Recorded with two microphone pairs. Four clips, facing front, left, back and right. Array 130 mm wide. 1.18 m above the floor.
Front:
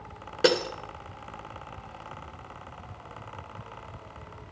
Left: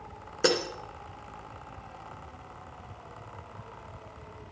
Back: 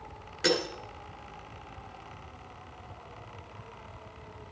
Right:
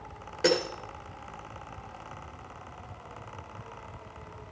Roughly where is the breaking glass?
Ahead left.